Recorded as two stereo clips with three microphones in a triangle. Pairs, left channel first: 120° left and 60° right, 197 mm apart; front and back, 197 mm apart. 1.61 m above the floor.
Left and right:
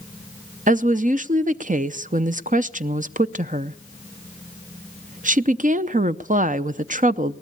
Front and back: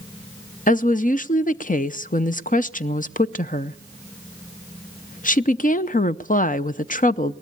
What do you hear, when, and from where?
0.7 s a woman speaking: 30° right, 0.6 m